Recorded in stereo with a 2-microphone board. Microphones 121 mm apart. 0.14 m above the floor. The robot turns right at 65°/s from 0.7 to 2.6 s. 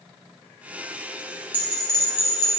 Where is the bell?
20° right, 2.5 m; by 2.5 s 45° left, 2.5 m.